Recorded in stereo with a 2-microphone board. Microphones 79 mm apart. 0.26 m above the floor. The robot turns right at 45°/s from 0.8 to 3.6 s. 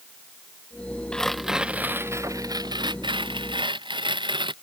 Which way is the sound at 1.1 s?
170° left.